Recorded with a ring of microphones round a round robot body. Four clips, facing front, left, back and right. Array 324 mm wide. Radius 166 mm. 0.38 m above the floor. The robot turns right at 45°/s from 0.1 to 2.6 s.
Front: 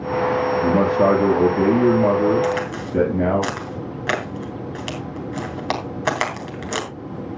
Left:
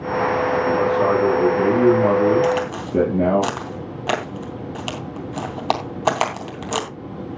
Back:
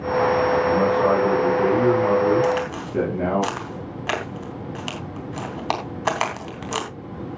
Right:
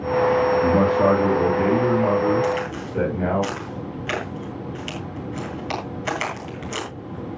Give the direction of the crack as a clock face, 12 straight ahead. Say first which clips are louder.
Left 3 dB, even; 10 o'clock.